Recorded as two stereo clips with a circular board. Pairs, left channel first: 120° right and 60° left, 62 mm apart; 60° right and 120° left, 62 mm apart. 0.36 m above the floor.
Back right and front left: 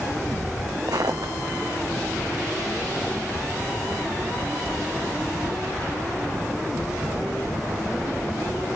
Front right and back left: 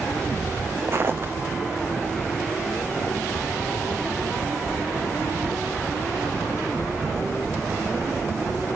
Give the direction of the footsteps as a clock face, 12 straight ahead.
10 o'clock.